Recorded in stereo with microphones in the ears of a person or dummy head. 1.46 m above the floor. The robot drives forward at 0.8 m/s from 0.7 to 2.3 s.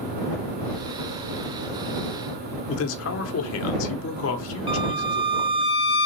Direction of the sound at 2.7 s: 75° left (ahead or behind).